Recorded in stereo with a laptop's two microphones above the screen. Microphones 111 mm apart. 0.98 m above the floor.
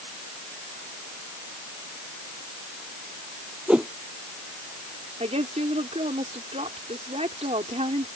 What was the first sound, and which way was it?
A whoosh, 10° right (ahead or behind).